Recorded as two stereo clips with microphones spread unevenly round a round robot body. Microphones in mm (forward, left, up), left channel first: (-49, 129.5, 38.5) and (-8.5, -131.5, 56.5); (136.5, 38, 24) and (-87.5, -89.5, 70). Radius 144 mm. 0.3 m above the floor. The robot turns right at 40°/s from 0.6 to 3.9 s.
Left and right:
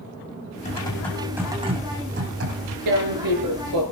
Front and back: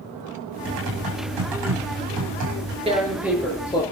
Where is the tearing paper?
80° right, 5 m; by 3.8 s 40° right, 5 m.